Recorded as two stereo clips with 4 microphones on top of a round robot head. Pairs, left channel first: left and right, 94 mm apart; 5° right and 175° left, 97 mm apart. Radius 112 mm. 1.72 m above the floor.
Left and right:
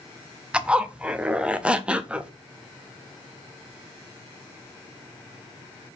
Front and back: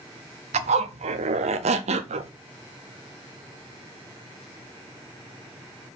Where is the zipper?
170° right, 0.6 m.